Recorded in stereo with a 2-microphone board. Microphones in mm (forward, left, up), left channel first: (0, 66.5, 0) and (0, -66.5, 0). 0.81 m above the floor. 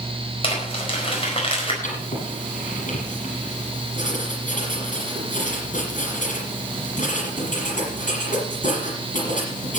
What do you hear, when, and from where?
0.4 s crumpling: 45° left (ahead or behind), 4.5 m
1.8 s writing: 70° left (ahead or behind), 7 m